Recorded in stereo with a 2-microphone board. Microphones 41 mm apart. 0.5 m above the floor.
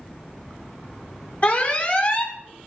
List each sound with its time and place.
1.4 s an alarm: 30° left (ahead or behind), 1.5 m